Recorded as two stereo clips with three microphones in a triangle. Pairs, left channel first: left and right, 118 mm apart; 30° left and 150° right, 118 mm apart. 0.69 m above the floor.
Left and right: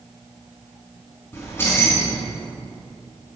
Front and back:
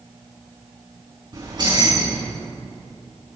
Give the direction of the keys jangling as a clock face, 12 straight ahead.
7 o'clock.